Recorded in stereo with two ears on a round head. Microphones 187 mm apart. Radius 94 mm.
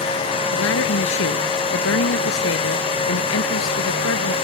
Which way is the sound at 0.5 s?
70° left (ahead or behind).